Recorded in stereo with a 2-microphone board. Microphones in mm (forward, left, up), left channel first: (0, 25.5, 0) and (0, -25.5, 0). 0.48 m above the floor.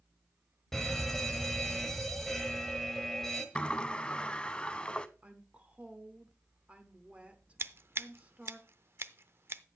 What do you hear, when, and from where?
0.7 s an alarm: 5° left (ahead or behind), 1.3 m
3.5 s a sliding door: 15° left (ahead or behind), 0.5 m
5.2 s a woman speaking: 25° right (ahead or behind), 1.0 m
7.6 s scissors: 50° right (ahead or behind), 0.5 m